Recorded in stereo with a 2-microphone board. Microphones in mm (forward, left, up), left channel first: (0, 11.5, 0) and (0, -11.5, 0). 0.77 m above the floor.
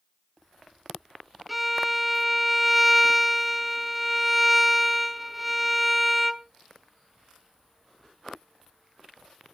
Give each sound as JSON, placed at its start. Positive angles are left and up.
{"t": 1.5, "sound": "a violin", "side_deg": 0, "distance_m": 0.6}